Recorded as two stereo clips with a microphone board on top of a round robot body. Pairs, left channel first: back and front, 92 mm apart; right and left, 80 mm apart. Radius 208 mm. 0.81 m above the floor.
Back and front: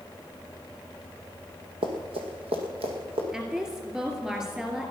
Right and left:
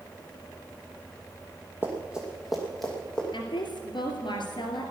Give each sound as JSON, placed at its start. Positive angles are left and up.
{"t": 1.8, "sound": "running footsteps", "azimuth_deg": 20, "distance_m": 1.5}
{"t": 3.3, "sound": "a woman speaking", "azimuth_deg": -80, "distance_m": 2.5}